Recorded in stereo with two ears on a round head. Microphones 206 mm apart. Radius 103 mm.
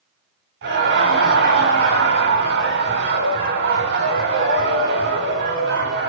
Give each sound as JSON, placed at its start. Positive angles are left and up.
{"t": 0.6, "sound": "laughter", "side_deg": -55, "distance_m": 6.0}